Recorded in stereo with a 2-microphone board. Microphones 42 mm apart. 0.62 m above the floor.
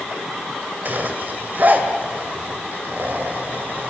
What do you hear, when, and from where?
0.8 s a zipper: 50° right (ahead or behind), 2.5 m